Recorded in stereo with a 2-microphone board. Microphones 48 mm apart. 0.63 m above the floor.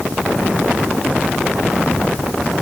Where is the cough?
I don't hear a cough.